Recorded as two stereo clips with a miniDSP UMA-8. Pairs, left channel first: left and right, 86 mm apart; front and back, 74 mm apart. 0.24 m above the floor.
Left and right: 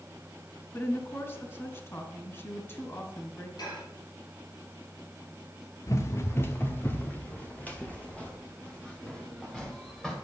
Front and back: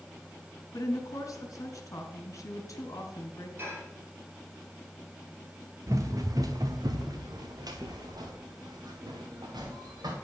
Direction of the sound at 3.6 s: 125° left.